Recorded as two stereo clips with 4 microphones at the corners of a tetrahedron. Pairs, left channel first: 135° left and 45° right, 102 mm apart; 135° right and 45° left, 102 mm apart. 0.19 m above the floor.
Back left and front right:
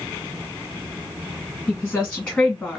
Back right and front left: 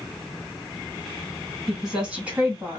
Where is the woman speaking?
135° left, 1.5 m; by 2.8 s 65° left, 1.6 m.